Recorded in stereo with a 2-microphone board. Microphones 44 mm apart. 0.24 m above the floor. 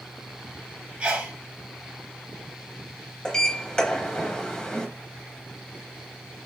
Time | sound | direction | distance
1.0 | a sneeze | 25° right (ahead or behind) | 1.0 m
3.2 | a sliding door | 20° left (ahead or behind) | 0.8 m